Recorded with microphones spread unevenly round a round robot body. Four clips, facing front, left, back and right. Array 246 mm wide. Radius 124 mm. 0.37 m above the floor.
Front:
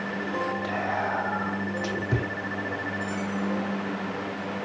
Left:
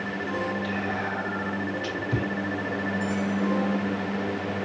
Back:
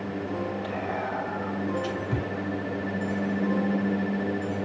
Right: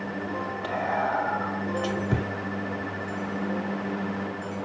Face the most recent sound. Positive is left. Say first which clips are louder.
# right 3 dB, front 2 dB
turn(degrees=-60)